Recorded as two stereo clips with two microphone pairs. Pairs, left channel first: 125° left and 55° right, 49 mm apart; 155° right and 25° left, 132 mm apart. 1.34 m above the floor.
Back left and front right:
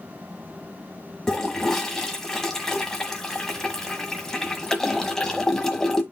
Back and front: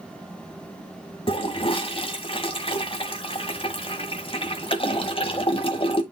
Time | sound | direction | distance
1.3 | a toilet flushing | 155° right | 1.5 m